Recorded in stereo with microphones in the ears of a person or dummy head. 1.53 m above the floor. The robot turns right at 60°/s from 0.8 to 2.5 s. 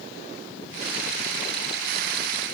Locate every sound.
Only background noise.